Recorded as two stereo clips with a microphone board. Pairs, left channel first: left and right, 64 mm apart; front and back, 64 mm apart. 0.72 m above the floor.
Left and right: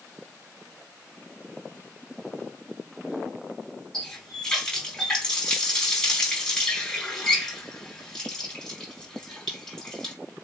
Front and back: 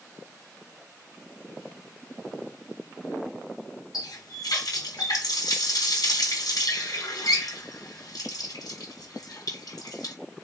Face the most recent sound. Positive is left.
turn(degrees=10)